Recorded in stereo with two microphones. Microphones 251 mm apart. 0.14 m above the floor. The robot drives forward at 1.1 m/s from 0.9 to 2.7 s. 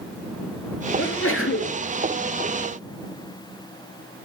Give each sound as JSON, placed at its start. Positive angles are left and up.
{"t": 1.0, "sound": "a sneeze", "side_deg": 55, "distance_m": 3.0}